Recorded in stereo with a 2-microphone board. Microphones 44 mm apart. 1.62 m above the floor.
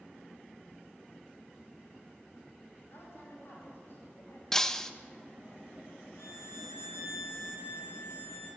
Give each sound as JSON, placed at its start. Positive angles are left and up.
{"t": 2.9, "sound": "a woman speaking", "side_deg": 65, "distance_m": 9.0}
{"t": 4.5, "sound": "breaking glass", "side_deg": 10, "distance_m": 1.0}
{"t": 6.2, "sound": "a violin", "side_deg": 75, "distance_m": 4.0}